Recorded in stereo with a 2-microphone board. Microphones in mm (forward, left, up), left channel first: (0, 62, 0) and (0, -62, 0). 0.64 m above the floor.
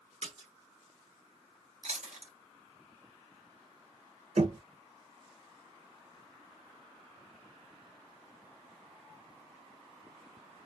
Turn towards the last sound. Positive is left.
turn(degrees=-80)